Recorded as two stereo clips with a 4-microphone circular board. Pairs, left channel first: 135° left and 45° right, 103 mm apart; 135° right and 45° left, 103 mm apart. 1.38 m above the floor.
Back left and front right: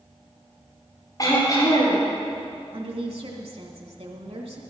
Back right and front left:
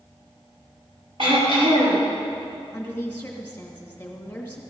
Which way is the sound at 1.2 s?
80° left.